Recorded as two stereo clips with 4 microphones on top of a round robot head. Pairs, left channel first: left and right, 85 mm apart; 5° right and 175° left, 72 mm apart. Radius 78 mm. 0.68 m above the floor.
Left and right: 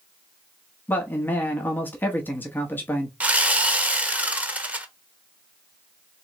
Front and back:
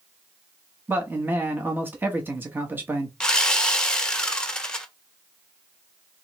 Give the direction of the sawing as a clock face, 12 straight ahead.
2 o'clock.